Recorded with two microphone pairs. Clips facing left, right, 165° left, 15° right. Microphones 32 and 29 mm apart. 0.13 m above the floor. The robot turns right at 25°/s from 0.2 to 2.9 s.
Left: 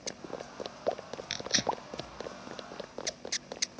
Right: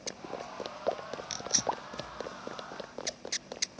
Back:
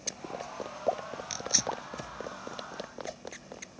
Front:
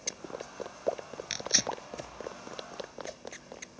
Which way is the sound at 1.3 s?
35° left.